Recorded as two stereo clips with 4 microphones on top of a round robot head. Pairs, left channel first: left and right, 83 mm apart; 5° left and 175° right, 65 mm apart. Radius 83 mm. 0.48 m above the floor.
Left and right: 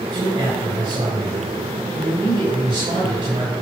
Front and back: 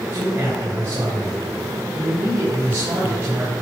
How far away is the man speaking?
About 4.5 m.